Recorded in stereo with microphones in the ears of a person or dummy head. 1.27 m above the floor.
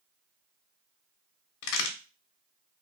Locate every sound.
1.6 s a crack: 75° left (ahead or behind), 0.8 m